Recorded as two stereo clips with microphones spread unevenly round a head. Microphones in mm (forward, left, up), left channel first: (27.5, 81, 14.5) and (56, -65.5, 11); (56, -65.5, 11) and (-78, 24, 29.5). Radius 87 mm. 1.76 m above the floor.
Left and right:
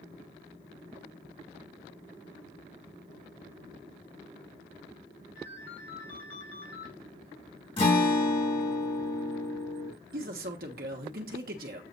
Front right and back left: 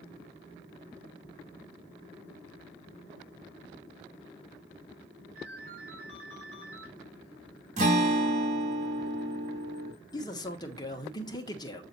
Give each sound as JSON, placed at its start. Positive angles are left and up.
{"t": 5.3, "sound": "a ringtone", "azimuth_deg": 105, "distance_m": 4.0}
{"t": 7.8, "sound": "a guitar", "azimuth_deg": 145, "distance_m": 2.0}
{"t": 10.1, "sound": "a man speaking", "azimuth_deg": -100, "distance_m": 1.4}